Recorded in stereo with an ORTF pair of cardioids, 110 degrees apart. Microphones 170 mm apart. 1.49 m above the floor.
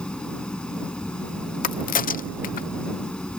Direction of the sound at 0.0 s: 5° left.